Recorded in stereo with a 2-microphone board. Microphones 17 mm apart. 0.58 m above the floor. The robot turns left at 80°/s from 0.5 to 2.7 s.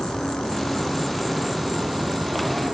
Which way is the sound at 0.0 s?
65° left.